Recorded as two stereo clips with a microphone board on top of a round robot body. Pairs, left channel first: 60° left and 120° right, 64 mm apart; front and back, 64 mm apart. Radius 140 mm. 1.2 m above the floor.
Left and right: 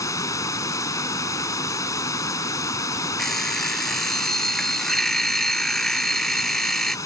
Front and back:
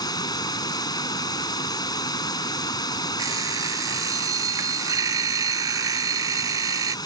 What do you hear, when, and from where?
0.0 s running water: 20° left
3.2 s an alarm clock: 145° left